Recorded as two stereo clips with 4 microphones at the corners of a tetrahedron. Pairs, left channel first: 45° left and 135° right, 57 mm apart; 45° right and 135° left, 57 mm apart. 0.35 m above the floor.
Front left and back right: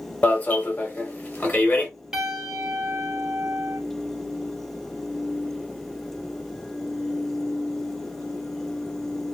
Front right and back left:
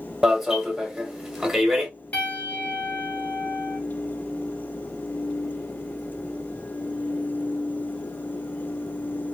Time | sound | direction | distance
0.2 | an alarm | 55° left | 1.0 m
2.1 | a piano | 75° right | 1.0 m